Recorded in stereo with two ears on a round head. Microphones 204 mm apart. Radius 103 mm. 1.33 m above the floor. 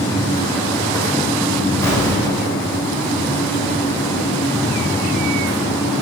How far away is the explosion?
About 3.5 m.